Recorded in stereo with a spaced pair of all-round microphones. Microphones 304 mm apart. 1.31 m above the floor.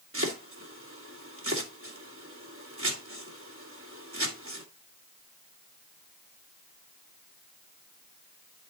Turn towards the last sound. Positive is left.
turn(degrees=-45)  # may be behind; listen again after turning